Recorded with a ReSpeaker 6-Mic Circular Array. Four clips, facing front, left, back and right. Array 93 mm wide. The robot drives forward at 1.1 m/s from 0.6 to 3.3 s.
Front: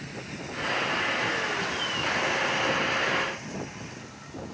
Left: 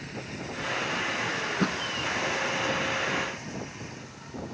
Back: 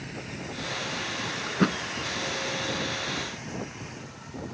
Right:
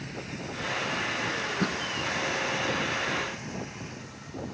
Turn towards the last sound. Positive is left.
turn(degrees=175)